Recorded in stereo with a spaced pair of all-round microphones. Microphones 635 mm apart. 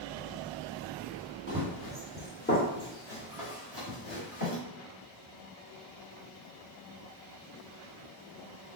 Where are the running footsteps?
20° right (ahead or behind), 1.2 m; by 4.6 s 60° left (ahead or behind), 2.5 m.